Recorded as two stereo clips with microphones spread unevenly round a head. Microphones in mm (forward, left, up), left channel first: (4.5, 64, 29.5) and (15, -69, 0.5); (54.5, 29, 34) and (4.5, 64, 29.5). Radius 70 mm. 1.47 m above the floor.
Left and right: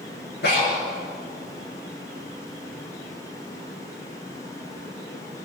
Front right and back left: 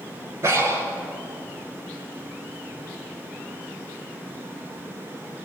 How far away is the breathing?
About 8 m.